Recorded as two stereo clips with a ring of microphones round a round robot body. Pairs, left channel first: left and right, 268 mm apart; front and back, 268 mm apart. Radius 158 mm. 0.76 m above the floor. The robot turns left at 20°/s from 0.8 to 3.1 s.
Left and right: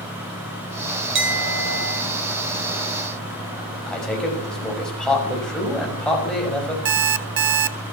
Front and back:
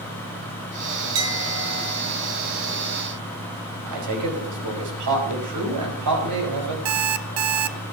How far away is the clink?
About 4.5 m.